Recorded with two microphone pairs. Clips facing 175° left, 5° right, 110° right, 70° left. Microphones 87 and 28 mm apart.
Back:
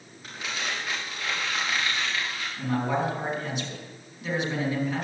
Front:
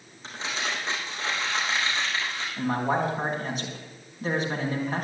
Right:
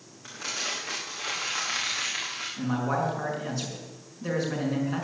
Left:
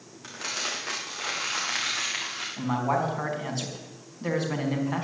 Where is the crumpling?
60° left, 5 m.